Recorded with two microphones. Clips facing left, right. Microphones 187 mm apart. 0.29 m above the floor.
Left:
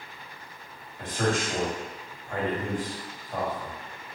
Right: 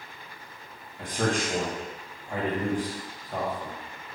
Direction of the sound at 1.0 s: 15° right (ahead or behind).